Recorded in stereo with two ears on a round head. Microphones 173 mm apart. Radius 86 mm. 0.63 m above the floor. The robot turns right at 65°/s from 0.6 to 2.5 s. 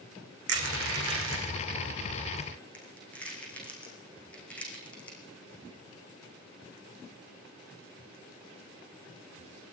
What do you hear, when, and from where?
0.5 s crushing: 65° right (ahead or behind), 7.5 m; by 5.2 s 5° left (ahead or behind), 7.5 m